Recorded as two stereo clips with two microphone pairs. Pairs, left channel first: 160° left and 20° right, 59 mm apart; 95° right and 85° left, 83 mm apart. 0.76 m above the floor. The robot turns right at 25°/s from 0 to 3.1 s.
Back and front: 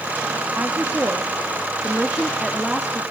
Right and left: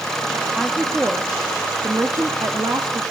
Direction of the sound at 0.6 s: 10° left.